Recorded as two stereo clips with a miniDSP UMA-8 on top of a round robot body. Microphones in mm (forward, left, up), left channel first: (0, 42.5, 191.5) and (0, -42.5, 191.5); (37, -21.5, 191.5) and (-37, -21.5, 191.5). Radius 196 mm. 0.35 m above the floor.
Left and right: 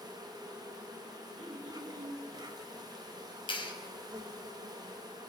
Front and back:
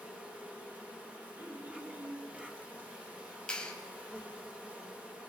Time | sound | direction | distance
0.0 | an insect | 115° right | 3 m
1.4 | throat clearing | 120° right | 6 m
3.5 | a clap | 75° left | 3.5 m